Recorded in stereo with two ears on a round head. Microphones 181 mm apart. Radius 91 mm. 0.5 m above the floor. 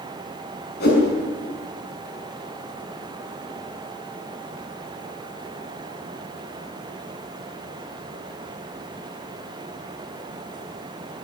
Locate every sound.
0.8 s a whoosh: 55° left (ahead or behind), 6.5 m